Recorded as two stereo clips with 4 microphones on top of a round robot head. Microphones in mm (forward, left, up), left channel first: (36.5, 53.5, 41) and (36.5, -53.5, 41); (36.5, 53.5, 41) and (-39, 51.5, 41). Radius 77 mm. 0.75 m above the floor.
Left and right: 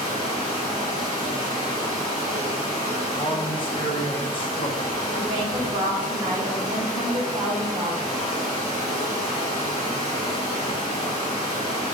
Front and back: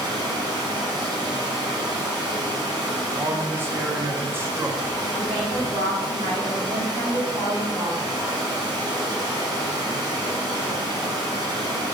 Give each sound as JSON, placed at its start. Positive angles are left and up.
{"t": 0.0, "sound": "running water", "azimuth_deg": 160, "distance_m": 2.0}
{"t": 3.0, "sound": "a man speaking", "azimuth_deg": 125, "distance_m": 0.9}
{"t": 5.1, "sound": "a woman speaking", "azimuth_deg": -150, "distance_m": 1.9}